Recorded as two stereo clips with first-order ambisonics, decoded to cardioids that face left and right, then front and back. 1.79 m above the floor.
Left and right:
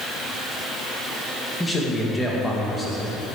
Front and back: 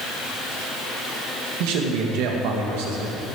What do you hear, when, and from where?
1.6 s a man speaking: 175° left, 2.5 m